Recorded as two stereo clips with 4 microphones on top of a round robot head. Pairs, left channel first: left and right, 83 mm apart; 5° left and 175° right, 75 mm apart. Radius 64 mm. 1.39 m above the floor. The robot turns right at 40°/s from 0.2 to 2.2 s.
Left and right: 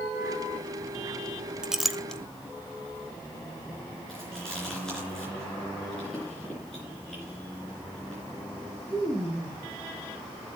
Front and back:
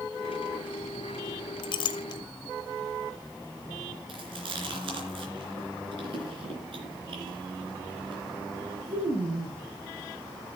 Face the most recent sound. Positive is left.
turn(degrees=175)